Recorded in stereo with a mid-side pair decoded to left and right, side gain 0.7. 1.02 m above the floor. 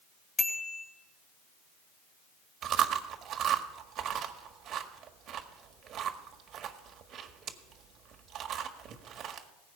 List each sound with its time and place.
0.4 s a bicycle bell: 25° left, 3.5 m
2.6 s chewing: 45° right, 1.6 m